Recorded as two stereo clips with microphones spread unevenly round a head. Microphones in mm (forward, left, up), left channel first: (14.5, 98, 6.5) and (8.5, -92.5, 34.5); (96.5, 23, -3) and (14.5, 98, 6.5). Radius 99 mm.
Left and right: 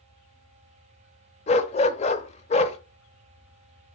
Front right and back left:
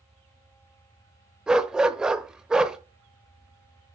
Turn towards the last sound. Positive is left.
turn(degrees=80)